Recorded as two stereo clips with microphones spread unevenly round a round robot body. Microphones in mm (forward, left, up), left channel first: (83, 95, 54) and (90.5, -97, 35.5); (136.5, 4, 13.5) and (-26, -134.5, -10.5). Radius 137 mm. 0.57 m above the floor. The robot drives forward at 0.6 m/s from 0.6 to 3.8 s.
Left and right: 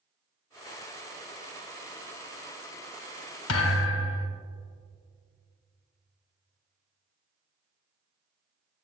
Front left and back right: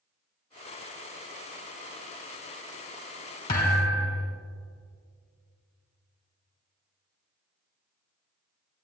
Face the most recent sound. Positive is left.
turn(degrees=110)